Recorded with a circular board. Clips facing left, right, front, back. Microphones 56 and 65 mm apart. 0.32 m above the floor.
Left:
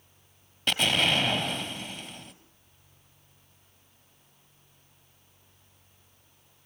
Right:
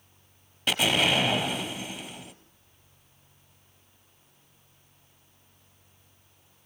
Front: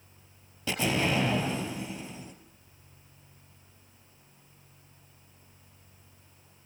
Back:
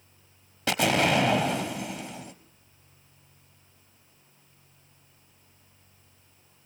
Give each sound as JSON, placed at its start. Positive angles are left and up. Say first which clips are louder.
{"t": 0.7, "sound": "an explosion", "louder": "right 1 dB, back 5 dB", "azimuth_deg": 180, "distance_m": 1.8}